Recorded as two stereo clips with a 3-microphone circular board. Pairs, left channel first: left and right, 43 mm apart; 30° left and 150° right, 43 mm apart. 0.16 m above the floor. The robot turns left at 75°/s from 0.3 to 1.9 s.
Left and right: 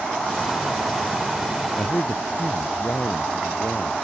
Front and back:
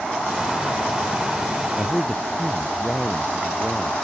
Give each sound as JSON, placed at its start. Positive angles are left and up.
{"t": 1.8, "sound": "a man speaking", "azimuth_deg": 135}